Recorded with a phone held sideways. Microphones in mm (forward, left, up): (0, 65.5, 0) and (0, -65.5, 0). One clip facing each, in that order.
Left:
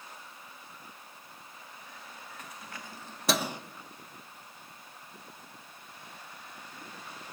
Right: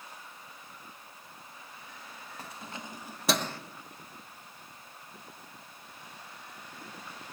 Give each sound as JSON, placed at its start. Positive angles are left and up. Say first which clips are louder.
{"t": 2.4, "sound": "keys jangling", "louder": "right 5 dB", "side_deg": -30, "distance_m": 1.1}